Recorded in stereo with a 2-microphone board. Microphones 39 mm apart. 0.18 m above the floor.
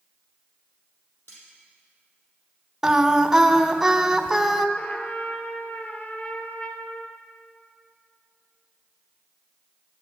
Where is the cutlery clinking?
65° left (ahead or behind), 4.5 m.